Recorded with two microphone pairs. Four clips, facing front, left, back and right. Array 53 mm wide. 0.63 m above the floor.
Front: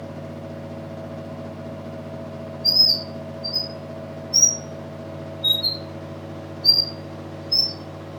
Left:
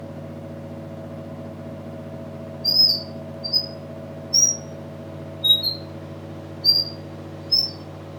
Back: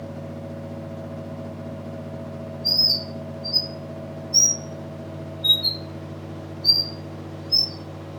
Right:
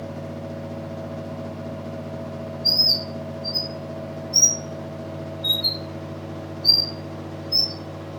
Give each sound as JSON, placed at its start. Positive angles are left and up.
{"t": 2.6, "sound": "a bird", "azimuth_deg": 50, "distance_m": 1.8}